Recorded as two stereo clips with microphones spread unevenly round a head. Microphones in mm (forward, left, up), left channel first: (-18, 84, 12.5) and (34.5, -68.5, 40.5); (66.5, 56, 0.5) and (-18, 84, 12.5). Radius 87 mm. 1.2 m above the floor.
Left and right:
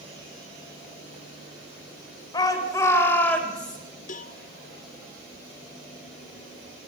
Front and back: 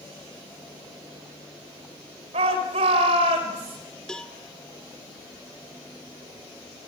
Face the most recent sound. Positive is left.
turn(degrees=65)